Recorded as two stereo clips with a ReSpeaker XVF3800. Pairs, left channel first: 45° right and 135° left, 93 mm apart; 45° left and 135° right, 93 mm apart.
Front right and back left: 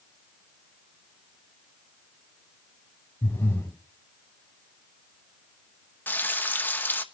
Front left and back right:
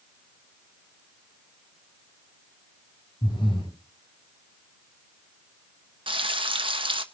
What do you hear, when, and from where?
3.2 s breathing: 20° left, 5 m
6.1 s frying: 115° right, 1.2 m